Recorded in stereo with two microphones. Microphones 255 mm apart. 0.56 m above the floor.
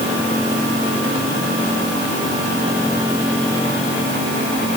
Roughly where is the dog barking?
I don't hear a dog barking.